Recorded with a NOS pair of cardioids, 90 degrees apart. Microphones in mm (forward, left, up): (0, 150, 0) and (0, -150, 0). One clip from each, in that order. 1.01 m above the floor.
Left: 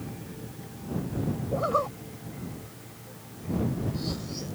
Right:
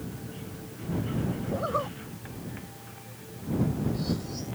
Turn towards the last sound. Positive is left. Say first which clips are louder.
# left 4 dB
turn(degrees=25)